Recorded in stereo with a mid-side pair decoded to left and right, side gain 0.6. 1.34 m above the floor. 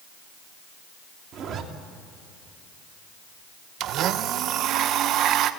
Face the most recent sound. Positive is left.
turn(degrees=-55)